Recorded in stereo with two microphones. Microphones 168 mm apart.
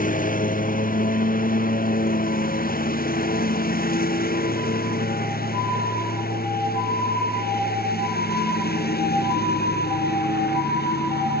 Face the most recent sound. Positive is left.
turn(degrees=70)  # may be behind; listen again after turning